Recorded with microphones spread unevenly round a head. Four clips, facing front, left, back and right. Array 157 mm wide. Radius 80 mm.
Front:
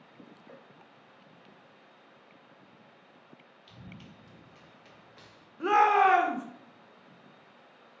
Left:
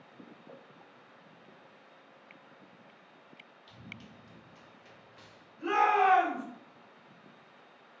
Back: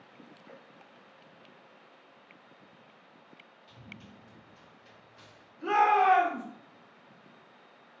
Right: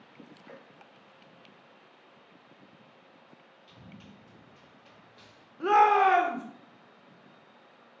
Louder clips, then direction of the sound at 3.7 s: Even, front 1 dB; 35° left.